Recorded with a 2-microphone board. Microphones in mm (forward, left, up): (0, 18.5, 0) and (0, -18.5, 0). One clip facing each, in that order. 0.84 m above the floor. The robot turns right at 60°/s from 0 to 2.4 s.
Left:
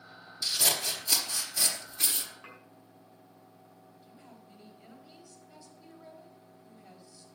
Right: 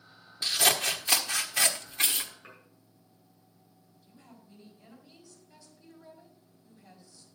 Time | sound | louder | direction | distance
0.4 | scissors | right 4 dB | 145° right | 1.2 m
2.4 | dishes clattering | left 2 dB | 80° left | 4.5 m
4.0 | a woman speaking | right 1 dB | 25° left (ahead or behind) | 4.5 m